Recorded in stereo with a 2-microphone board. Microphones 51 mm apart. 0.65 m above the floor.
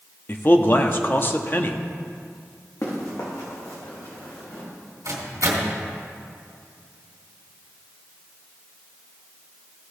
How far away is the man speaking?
About 0.6 m.